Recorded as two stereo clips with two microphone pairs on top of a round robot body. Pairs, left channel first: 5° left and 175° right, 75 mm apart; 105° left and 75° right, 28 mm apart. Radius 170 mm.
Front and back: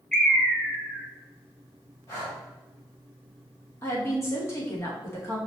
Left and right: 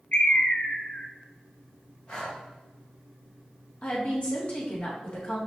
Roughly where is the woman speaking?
Ahead left.